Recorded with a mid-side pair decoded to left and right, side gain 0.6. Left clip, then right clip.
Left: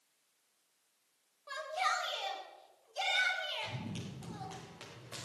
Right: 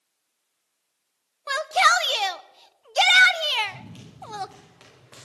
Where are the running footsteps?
10° left, 8 m.